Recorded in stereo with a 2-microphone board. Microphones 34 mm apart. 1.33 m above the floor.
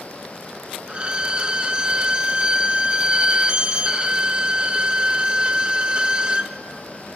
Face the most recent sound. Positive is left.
turn(degrees=-30)  # may be behind; listen again after turning